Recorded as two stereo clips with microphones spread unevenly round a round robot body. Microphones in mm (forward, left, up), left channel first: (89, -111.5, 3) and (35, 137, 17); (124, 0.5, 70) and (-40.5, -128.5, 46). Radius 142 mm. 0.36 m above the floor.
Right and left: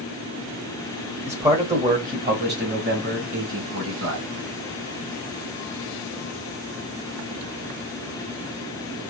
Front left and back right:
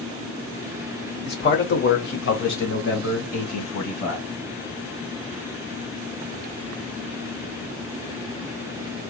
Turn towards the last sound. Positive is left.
turn(degrees=70)